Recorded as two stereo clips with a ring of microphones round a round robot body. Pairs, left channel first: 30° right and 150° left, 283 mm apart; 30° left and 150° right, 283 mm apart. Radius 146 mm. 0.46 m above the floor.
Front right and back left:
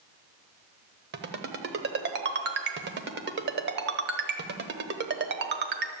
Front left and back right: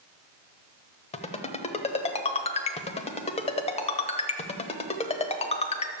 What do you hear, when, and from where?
1.1 s a ringtone: 100° left, 1.1 m